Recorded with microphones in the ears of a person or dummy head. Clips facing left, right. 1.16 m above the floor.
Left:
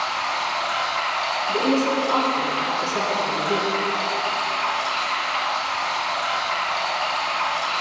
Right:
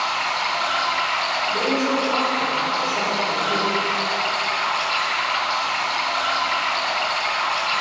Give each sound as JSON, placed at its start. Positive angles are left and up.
{"t": 0.0, "sound": "running water", "side_deg": -20, "distance_m": 3.5}
{"t": 1.5, "sound": "a woman speaking", "side_deg": 80, "distance_m": 3.5}